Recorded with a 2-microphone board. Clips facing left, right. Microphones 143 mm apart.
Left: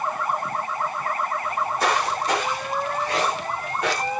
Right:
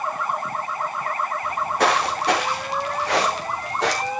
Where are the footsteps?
70° right (ahead or behind), 4 m; by 4.1 s 85° right, 4.5 m.